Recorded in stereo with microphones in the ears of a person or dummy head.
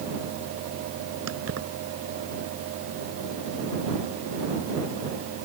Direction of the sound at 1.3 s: 80° right.